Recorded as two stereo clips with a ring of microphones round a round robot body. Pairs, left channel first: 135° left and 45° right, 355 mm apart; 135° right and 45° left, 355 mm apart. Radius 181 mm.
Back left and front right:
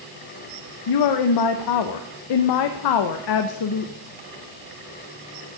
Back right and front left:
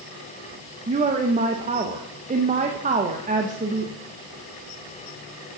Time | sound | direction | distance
0.9 | a woman speaking | 115° left | 0.6 m